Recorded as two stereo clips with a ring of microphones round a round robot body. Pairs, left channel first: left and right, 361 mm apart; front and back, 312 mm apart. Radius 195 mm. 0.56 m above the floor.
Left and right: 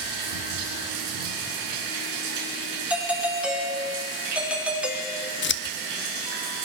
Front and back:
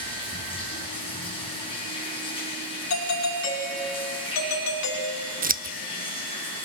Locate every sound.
0.0 s running water: 75° right, 5.5 m
2.9 s a doorbell: 5° right, 2.5 m
5.4 s scissors: 130° left, 0.7 m